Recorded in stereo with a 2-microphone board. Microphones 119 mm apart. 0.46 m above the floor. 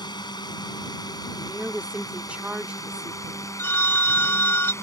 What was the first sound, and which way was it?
A drone, 35° left (ahead or behind).